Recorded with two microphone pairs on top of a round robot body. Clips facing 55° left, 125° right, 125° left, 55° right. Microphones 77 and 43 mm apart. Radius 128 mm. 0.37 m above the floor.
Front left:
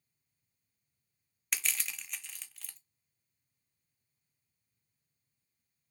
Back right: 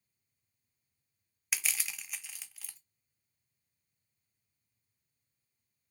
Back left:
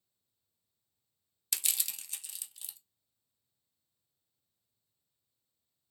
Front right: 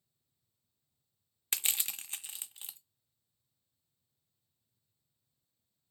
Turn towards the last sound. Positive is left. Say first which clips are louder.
# even, front right 2 dB
turn(degrees=-45)